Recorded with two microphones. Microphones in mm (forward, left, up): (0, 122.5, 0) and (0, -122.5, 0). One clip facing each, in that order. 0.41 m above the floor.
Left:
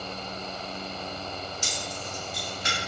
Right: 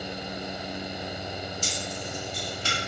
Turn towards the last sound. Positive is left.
turn(degrees=25)  # may be behind; listen again after turning